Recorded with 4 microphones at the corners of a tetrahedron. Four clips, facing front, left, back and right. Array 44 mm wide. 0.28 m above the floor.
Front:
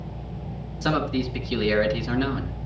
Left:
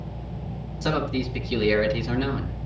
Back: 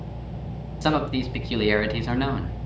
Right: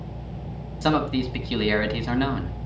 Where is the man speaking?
135° right, 2.5 m.